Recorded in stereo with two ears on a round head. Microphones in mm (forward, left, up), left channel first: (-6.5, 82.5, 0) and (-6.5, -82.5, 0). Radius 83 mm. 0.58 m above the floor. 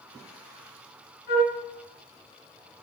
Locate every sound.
1.3 s a flute: 60° left (ahead or behind), 3 m